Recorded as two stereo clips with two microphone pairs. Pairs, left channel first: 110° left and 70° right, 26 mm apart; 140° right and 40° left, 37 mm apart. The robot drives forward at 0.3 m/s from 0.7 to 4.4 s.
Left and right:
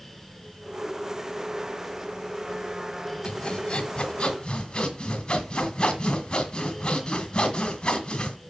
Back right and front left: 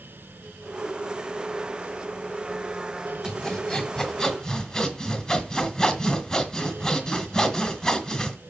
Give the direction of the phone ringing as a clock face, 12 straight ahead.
No phone ringing in this recording.